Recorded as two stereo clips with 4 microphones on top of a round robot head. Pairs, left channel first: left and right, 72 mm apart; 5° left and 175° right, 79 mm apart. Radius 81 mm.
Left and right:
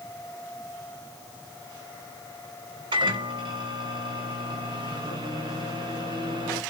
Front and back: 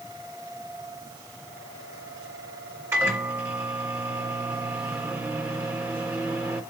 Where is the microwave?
110° right, 1.7 m.